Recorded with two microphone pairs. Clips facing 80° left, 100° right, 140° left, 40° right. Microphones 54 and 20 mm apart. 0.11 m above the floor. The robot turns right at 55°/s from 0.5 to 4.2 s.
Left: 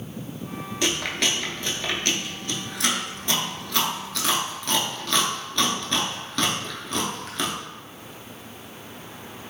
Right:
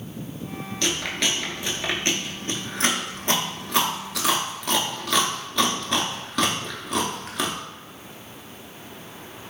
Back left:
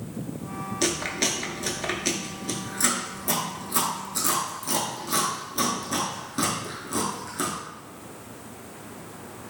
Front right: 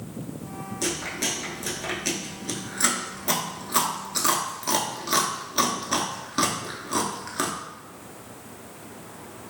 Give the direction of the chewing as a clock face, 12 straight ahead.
7 o'clock.